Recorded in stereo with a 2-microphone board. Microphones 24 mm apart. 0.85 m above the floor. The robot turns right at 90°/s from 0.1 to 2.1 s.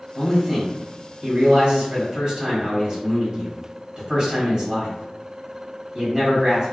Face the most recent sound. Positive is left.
turn(degrees=-35)  # may be behind; listen again after turning